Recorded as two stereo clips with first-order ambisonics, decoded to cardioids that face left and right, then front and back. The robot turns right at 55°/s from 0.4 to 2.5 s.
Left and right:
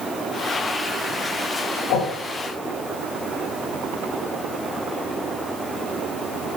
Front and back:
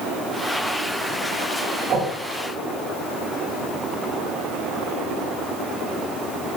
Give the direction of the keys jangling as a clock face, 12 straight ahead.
I don't hear keys jangling.